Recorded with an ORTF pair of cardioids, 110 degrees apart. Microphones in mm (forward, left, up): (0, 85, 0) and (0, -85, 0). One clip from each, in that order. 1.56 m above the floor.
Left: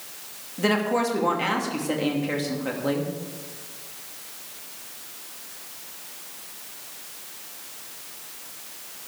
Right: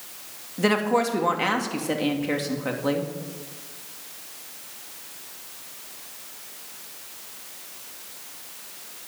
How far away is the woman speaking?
About 2.5 m.